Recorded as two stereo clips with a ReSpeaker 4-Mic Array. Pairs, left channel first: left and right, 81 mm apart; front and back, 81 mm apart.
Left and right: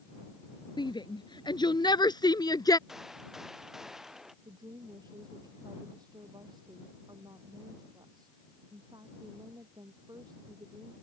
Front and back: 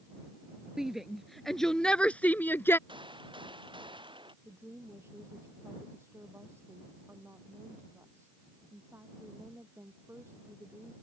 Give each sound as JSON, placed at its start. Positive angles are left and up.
{"t": 0.8, "sound": "a shout", "azimuth_deg": 95}
{"t": 2.9, "sound": "a gunshot", "azimuth_deg": -175}
{"t": 4.5, "sound": "a woman speaking", "azimuth_deg": -120}